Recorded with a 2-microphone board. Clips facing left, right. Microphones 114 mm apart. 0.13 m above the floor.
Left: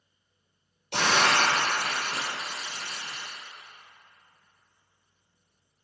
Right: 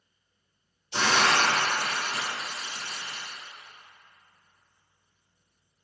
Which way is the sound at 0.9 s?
65° left (ahead or behind).